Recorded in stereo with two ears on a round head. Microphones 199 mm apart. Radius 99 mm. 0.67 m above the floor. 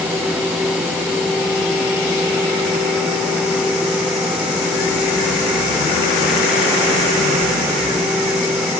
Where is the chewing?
No chewing in this recording.